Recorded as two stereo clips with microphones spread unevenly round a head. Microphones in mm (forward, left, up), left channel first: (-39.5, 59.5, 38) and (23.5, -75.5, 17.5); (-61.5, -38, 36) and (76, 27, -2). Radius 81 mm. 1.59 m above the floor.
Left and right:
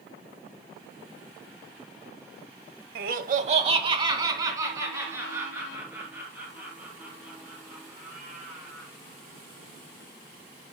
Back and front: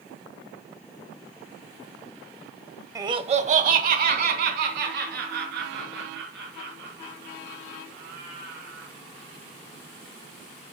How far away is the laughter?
About 1.0 m.